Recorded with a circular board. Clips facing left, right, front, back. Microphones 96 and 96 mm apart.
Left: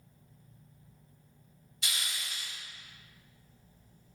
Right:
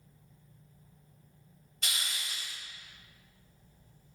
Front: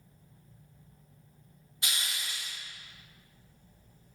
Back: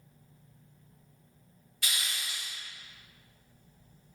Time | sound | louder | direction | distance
1.8 | a hiss | even, even | 60° right | 1.3 m